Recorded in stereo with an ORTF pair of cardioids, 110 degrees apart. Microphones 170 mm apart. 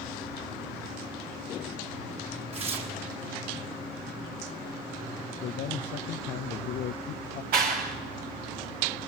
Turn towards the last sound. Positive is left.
turn(degrees=-65)